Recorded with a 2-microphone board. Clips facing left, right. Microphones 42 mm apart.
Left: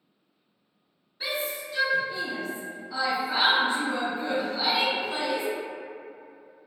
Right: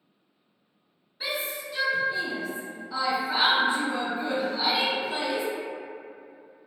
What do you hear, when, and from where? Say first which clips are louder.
1.2 s a shout: even; 5° right (ahead or behind), 0.9 m